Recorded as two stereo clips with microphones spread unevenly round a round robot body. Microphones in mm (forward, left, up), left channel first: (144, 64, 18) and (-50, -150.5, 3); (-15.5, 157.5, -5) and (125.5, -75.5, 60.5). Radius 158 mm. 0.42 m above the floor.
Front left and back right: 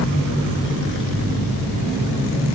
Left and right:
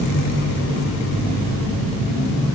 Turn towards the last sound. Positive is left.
No sound to turn to.